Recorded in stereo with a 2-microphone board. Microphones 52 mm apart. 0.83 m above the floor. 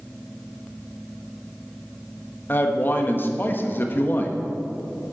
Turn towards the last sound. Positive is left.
turn(degrees=40)  # may be behind; listen again after turning